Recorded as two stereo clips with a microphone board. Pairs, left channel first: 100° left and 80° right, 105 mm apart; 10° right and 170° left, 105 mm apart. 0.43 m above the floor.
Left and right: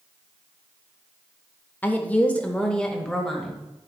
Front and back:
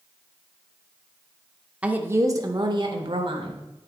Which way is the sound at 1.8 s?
115° left.